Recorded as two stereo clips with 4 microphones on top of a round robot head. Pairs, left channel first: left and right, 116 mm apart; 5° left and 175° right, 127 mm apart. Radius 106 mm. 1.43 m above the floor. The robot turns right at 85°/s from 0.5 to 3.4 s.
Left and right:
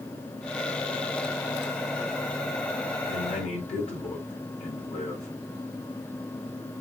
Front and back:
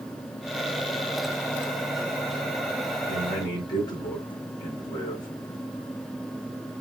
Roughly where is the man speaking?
Ahead left.